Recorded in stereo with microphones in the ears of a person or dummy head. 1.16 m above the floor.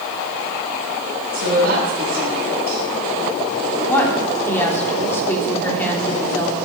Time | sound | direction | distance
1.3 | a woman speaking | 55° right (ahead or behind) | 8.5 m
3.9 | a woman speaking | 10° left (ahead or behind) | 3 m